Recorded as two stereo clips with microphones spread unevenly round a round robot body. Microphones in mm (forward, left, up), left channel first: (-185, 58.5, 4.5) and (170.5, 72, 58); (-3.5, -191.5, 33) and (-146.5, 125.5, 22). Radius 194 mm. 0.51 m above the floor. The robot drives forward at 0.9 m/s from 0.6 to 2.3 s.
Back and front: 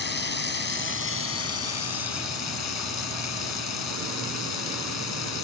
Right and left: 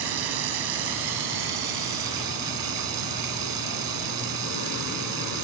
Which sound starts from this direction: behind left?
Running water, at 0.0 s.